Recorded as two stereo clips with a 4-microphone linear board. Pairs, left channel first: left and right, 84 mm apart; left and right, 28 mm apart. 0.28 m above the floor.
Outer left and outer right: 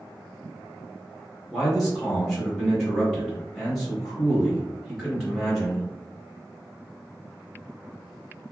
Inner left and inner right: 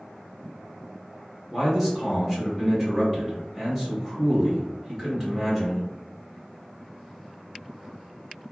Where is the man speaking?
Centre (ahead or behind), 1.1 m.